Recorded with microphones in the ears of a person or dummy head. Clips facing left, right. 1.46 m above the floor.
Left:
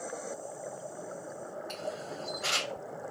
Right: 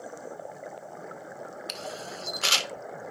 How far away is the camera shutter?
About 0.6 m.